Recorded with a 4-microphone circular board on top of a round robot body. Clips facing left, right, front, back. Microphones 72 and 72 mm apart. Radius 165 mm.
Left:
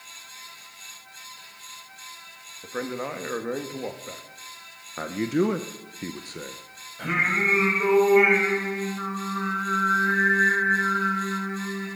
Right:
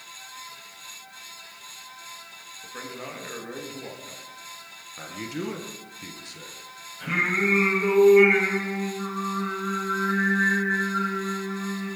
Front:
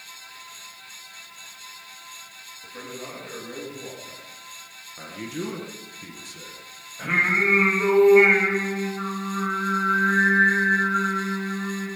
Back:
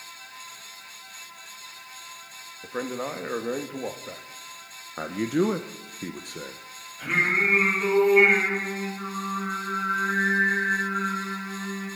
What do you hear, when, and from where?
2.6 s a man speaking: 145° left, 1.8 m
5.0 s a man speaking: 140° left, 0.9 m
7.0 s singing: 50° left, 8 m